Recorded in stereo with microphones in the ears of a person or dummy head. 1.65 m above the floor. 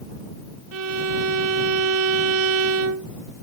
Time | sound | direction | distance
0.7 | a violin | 75° right (ahead or behind) | ?